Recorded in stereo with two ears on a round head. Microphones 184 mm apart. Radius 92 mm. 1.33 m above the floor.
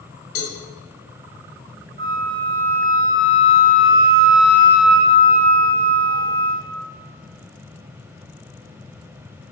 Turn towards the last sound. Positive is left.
turn(degrees=-45)  # may be behind; listen again after turning